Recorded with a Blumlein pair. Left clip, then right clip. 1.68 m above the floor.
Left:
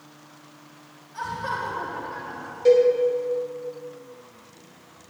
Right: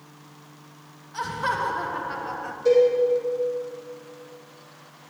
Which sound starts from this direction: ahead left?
A cowbell, at 2.6 s.